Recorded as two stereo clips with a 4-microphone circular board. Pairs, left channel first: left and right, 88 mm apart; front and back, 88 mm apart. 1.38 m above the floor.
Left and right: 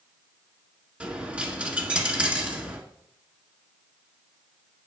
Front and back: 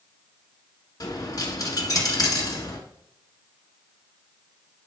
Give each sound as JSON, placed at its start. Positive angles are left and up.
{"t": 1.0, "sound": "a dropped coin", "azimuth_deg": -20, "distance_m": 1.8}